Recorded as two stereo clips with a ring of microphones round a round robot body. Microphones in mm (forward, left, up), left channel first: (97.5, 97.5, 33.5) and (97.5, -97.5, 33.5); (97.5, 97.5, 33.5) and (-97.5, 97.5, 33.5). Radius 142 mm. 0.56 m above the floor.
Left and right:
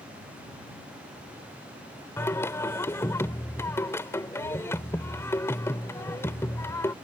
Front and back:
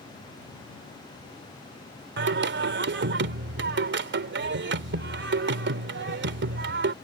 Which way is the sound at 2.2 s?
170° left.